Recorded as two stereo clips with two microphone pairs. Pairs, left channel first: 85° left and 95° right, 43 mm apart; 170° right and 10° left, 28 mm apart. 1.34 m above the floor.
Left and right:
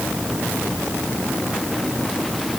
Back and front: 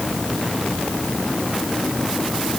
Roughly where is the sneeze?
I don't hear a sneeze.